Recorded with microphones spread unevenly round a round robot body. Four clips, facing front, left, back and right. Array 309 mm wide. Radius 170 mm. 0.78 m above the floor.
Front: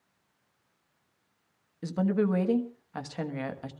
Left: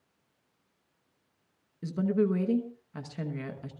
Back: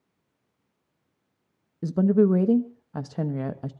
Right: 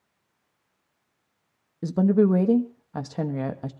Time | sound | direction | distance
1.8 | a woman speaking | 135° right | 1.2 m